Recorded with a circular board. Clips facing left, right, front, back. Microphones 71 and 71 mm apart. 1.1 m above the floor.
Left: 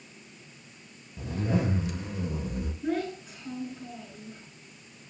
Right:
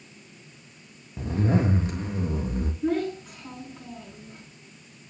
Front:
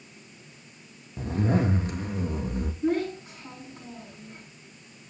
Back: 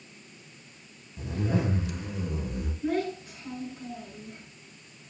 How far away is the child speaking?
About 7 m.